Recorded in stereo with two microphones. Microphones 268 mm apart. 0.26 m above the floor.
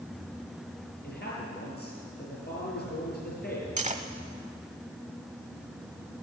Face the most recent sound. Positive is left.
turn(degrees=-25)  # may be behind; listen again after turning